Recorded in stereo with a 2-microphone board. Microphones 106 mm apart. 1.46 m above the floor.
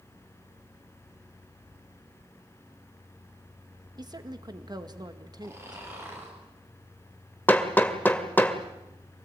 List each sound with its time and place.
4.0 s a woman speaking: 40° right (ahead or behind), 2.0 m
5.4 s snoring: 25° right (ahead or behind), 8 m
7.5 s hammering: 20° left (ahead or behind), 2.0 m